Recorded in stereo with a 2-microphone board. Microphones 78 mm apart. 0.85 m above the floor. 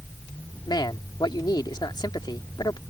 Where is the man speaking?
70° left (ahead or behind).